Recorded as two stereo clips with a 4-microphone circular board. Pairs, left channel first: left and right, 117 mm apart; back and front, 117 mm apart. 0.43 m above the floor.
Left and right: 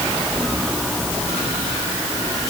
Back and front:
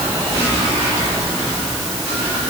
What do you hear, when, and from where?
Only background noise.